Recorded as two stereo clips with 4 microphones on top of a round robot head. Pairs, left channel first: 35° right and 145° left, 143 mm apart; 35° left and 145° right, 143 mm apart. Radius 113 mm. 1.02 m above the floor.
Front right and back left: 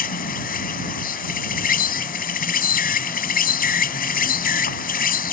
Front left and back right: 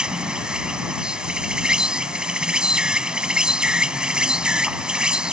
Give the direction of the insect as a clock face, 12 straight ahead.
2 o'clock.